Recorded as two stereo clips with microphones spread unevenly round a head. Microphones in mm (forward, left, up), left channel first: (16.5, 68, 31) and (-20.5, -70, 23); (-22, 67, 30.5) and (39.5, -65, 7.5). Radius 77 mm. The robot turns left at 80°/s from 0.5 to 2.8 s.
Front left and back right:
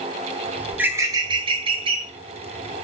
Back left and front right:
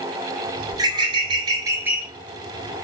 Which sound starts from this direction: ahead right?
A bird, at 0.7 s.